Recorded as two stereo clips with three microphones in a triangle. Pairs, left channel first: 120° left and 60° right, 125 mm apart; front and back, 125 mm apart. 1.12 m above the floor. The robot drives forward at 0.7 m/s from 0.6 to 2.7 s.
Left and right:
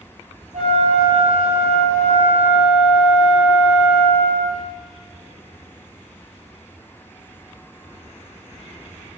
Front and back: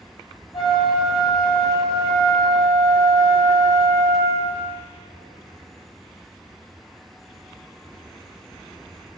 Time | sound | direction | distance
0.5 | a flute | 50° right | 3 m